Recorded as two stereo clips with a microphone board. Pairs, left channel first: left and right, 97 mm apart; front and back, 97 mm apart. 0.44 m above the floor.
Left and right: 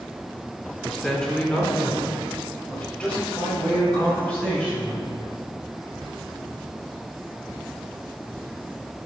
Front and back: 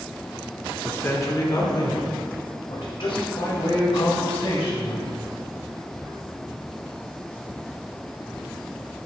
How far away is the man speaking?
About 0.8 m.